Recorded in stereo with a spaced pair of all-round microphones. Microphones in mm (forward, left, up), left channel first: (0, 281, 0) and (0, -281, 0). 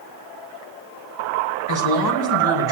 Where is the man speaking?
35° left (ahead or behind), 5 m; by 2.7 s 40° left (ahead or behind), 4.5 m.